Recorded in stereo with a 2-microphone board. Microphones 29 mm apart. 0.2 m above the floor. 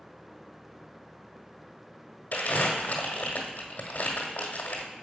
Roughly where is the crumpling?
Left.